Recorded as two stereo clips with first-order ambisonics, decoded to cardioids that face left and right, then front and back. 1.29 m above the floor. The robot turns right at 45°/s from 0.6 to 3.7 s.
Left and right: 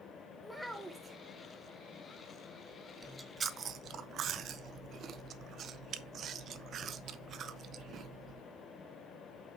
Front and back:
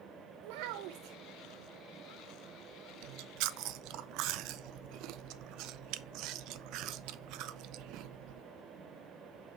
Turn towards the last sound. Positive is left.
turn(degrees=-145)